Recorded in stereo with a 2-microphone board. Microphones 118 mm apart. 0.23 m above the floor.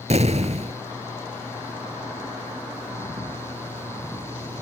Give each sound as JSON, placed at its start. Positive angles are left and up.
{"t": 0.1, "sound": "an explosion", "side_deg": -70}